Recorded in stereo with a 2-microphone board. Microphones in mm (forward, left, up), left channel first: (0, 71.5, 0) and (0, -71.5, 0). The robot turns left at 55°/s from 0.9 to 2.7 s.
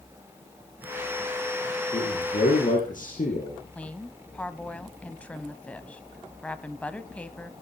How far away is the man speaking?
About 5 m.